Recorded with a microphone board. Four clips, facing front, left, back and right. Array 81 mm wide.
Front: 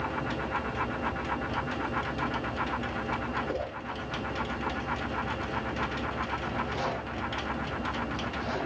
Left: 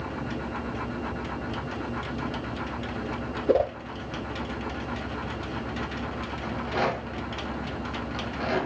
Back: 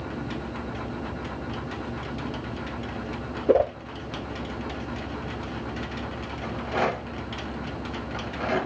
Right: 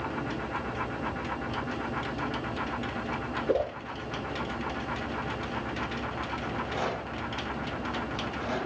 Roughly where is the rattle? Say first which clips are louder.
Left 6 dB, back 10 dB; behind left.